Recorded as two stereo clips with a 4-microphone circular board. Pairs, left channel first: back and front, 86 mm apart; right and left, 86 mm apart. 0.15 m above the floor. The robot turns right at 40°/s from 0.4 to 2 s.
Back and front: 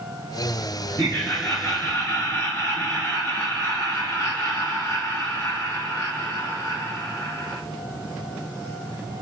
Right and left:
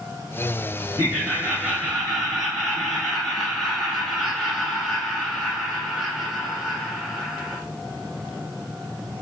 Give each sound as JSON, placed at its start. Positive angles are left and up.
{"t": 1.0, "sound": "laughter", "azimuth_deg": 130, "distance_m": 1.8}